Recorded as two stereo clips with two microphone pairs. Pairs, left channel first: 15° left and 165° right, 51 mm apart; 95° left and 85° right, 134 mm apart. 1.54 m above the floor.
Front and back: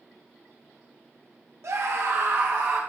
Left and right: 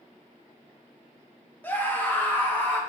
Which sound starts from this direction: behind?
A scream, at 1.6 s.